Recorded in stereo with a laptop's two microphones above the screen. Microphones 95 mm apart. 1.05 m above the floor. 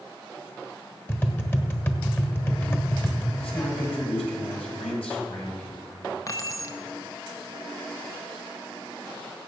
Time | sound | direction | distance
1.1 | tapping | 20° left (ahead or behind) | 1.3 m
3.4 | a man speaking | 80° left | 4 m
6.3 | keys jangling | 35° left (ahead or behind) | 0.9 m